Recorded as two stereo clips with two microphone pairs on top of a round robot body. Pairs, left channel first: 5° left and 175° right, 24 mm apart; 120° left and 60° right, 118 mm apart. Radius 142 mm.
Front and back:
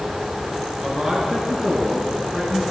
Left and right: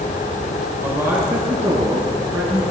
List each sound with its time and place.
0.8 s a man speaking: 130° right, 8.5 m; by 2.6 s 120° right, 9.5 m